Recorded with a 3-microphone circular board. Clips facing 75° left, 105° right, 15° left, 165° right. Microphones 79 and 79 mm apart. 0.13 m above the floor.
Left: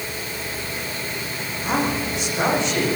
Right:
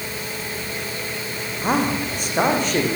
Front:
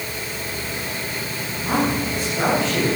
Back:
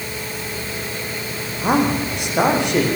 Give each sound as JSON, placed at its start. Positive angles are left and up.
{"t": 1.6, "sound": "a man speaking", "azimuth_deg": -145, "distance_m": 8.5}